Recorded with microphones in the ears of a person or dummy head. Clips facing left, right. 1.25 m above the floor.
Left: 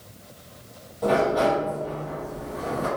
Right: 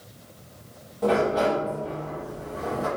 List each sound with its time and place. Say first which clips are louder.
1.0 s a sliding door: left 1 dB; 5° right (ahead or behind), 0.9 m